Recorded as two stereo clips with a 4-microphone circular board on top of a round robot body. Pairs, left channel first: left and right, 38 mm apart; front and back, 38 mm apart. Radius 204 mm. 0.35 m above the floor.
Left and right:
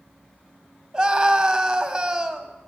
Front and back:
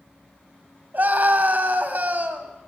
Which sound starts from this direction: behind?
A scream, at 0.9 s.